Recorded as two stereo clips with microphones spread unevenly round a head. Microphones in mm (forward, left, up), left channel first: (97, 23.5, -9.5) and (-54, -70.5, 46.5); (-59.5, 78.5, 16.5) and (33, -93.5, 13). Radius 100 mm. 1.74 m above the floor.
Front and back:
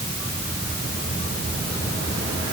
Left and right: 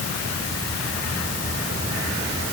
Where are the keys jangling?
I don't hear keys jangling.